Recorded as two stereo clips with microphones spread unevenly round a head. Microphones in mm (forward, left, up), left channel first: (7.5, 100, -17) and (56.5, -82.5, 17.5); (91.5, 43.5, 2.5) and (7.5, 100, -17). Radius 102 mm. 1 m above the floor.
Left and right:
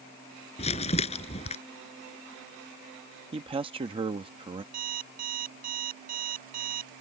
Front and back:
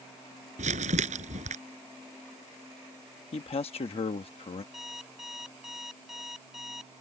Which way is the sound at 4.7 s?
125° right.